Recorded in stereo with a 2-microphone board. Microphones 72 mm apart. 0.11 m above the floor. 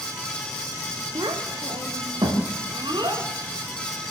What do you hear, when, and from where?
1.1 s a child speaking: 75° right (ahead or behind), 6.5 m; by 3.2 s 85° right, 8.5 m